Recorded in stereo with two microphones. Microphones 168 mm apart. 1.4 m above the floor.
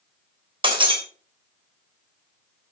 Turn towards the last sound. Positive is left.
turn(degrees=-30)  # may be behind; listen again after turning